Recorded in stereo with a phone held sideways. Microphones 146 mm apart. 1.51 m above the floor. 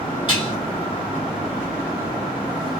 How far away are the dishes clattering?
About 1.8 m.